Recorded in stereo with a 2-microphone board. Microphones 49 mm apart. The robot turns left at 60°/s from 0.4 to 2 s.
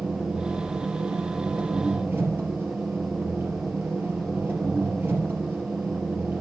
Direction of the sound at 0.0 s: 35° right.